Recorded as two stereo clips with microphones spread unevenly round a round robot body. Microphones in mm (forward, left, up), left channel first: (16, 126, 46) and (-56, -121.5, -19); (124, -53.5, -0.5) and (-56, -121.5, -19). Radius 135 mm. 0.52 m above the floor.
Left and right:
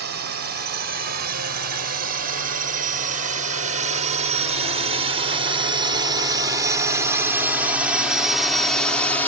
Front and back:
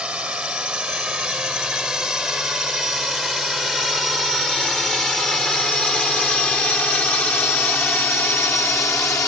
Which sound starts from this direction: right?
A drone, at 0.0 s.